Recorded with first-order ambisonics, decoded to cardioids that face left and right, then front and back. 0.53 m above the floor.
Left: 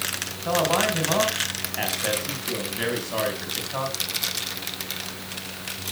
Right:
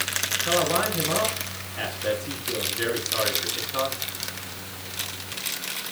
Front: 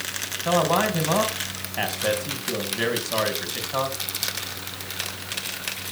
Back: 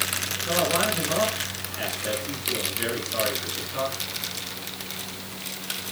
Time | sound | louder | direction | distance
0.5 | a man speaking | left 3 dB, front 3 dB | 25° left | 3.5 m